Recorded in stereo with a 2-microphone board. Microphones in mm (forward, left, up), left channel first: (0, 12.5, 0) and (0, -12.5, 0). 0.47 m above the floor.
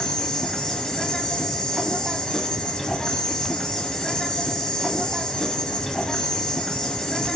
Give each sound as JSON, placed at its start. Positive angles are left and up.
{"t": 0.0, "sound": "an insect", "side_deg": 25, "distance_m": 2.5}